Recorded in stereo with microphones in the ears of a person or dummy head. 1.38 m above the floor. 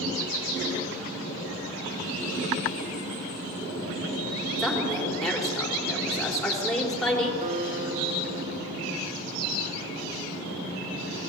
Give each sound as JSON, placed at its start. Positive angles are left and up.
{"t": 4.6, "sound": "a woman speaking", "side_deg": 5, "distance_m": 4.0}
{"t": 7.4, "sound": "a guitar", "side_deg": -45, "distance_m": 1.8}